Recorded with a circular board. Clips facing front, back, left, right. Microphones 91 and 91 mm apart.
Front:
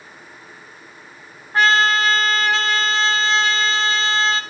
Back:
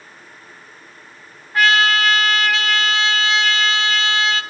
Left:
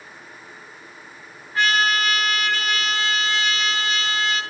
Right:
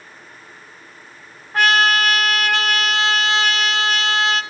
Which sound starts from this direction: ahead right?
A trumpet, at 1.5 s.